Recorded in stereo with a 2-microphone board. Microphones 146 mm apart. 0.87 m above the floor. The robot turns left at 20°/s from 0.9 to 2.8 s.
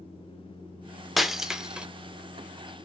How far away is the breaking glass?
About 0.5 m.